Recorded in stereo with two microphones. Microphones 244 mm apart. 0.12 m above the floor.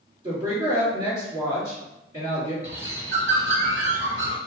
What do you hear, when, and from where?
0.2 s a woman speaking: 15° right (ahead or behind), 1.9 m
2.6 s a bird: 60° right (ahead or behind), 0.9 m